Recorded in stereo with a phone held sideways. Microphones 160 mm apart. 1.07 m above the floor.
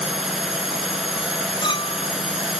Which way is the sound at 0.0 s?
5° right (ahead or behind).